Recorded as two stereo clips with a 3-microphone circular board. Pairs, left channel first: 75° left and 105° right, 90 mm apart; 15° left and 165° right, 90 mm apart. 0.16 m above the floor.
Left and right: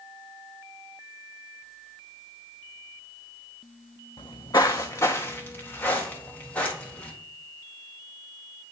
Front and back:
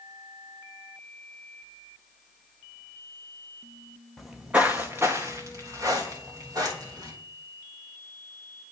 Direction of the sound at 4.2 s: 105° left.